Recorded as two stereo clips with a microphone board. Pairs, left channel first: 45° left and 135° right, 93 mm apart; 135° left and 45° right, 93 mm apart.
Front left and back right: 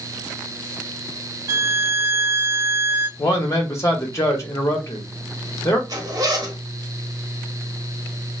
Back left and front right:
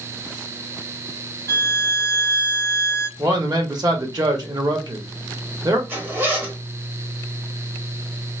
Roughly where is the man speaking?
Ahead.